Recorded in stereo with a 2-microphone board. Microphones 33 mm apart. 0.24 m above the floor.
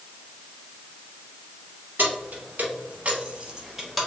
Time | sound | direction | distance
2.0 | keys jangling | 65° right (ahead or behind) | 1.9 m